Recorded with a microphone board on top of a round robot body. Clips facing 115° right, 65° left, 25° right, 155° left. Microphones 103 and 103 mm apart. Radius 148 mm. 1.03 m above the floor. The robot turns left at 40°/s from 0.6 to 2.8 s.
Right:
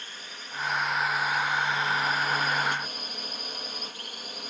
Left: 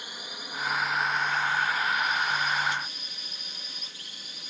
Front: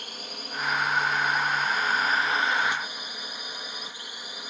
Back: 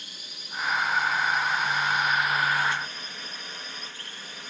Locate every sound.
0.0 s a drone: 10° right; by 4.5 s 95° right